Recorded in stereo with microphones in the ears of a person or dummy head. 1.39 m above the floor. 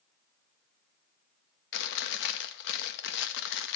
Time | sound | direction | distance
1.7 | chewing | 70° left (ahead or behind) | 1.3 m